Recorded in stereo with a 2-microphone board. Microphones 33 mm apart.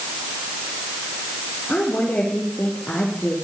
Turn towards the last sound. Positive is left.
turn(degrees=65)  # may be behind; listen again after turning